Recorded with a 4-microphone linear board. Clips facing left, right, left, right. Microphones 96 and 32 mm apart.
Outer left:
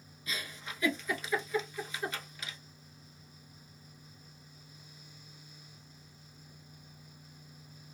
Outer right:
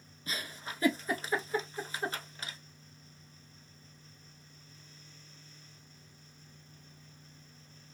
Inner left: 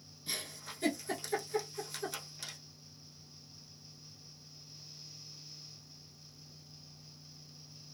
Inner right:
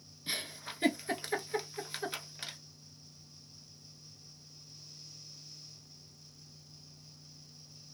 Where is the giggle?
35° right (ahead or behind), 0.7 m.